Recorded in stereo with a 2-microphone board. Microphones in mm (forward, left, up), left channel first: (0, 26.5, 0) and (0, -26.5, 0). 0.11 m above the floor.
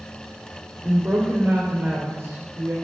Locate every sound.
0.8 s a woman speaking: 50° right (ahead or behind), 3 m